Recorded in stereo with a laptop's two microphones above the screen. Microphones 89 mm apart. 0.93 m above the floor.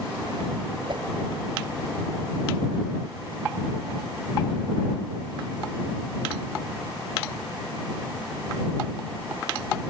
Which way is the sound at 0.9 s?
55° right (ahead or behind).